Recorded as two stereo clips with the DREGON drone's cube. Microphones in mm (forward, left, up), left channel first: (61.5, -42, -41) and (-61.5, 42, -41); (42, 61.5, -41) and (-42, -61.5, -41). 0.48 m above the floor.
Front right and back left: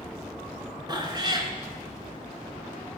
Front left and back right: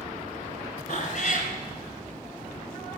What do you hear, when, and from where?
0.9 s a cat meowing: 85° left, 1.5 m